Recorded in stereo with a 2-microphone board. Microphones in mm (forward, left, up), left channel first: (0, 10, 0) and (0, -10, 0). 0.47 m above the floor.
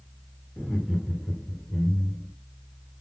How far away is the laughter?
About 1.1 m.